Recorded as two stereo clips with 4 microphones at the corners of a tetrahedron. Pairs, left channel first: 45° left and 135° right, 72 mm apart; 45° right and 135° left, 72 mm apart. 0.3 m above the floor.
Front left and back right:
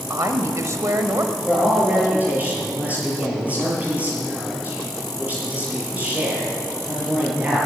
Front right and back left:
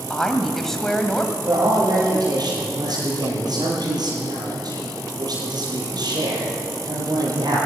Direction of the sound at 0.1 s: 130° right.